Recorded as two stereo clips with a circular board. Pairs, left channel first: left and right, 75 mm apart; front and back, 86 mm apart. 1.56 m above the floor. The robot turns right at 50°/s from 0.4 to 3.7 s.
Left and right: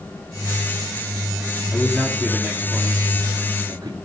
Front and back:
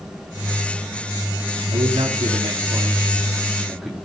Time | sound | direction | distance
1.7 | a man speaking | 170° left | 3 m